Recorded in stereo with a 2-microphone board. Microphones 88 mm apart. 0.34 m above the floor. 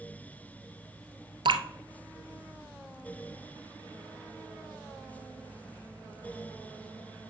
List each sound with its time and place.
1.4 s dripping: 80° right, 0.9 m